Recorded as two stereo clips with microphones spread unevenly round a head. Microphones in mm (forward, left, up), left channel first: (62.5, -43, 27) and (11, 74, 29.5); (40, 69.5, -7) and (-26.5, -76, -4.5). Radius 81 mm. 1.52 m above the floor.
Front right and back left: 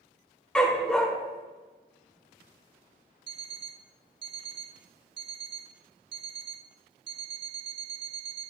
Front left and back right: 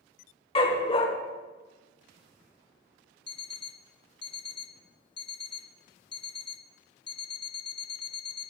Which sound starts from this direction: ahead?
A dog barking, at 0.6 s.